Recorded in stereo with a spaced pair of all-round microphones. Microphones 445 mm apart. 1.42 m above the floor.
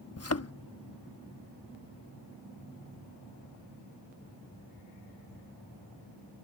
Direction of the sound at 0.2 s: 35° left (ahead or behind).